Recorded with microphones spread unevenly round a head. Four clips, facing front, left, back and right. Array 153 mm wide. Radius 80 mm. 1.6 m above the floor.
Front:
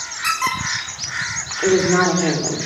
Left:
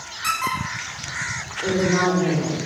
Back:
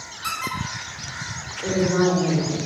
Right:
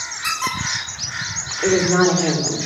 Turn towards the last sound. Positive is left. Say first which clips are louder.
# right 4 dB, front 5 dB
turn(degrees=-15)